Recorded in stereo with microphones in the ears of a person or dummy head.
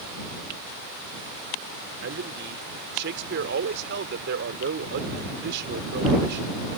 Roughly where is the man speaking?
Right.